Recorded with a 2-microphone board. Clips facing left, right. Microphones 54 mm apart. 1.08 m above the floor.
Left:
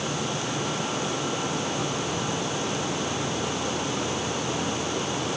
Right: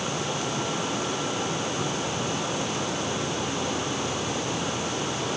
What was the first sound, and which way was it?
Only background noise.